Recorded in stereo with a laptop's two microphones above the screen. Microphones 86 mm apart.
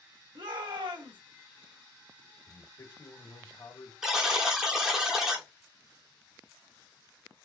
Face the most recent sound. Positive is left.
turn(degrees=-5)  # may be behind; listen again after turning